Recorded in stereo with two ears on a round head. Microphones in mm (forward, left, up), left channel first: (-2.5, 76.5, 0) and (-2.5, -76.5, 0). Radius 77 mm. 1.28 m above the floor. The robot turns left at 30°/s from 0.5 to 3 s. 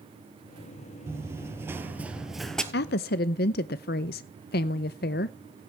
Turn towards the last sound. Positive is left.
turn(degrees=60)  # may be behind; listen again after turning